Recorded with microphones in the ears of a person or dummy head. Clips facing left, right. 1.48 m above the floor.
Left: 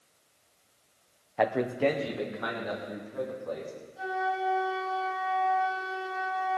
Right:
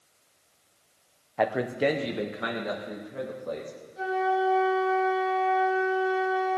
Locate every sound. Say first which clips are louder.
1.4 s a man speaking: even; 5° left (ahead or behind), 0.7 m; by 3.7 s 40° right (ahead or behind), 2.5 m
4.0 s a flute: right 6 dB; 30° right (ahead or behind), 4 m